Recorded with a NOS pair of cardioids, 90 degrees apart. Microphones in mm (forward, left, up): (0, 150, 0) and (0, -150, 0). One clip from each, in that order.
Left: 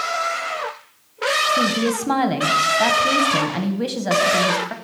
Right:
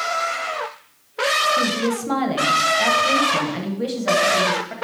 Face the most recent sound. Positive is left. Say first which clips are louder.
# left 1 dB
turn(degrees=25)